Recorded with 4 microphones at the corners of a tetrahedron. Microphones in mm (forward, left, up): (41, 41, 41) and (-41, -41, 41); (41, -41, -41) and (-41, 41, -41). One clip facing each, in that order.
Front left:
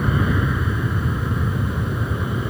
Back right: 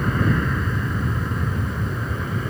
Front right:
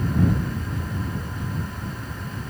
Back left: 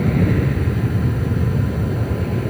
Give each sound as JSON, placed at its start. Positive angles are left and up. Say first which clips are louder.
{"t": 0.0, "sound": "an aircraft", "louder": "even, back left 5 dB", "azimuth_deg": 130}